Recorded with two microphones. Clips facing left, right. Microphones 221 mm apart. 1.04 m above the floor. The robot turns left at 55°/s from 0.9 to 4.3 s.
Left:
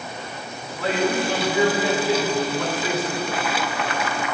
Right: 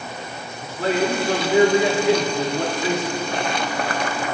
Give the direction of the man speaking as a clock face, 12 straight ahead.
1 o'clock.